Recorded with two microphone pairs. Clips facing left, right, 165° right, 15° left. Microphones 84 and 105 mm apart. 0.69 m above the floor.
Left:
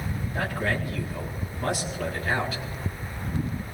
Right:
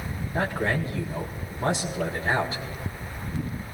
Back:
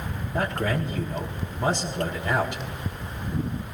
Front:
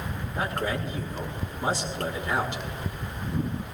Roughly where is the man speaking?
Behind right.